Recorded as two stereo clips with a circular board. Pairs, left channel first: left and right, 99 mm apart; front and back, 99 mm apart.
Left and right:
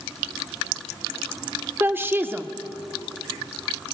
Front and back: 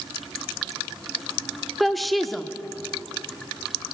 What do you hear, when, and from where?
1.8 s a woman speaking: 90° right, 0.7 m